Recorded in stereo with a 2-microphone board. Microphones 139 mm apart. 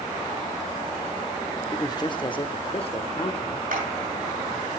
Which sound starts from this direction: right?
A clap, at 3.7 s.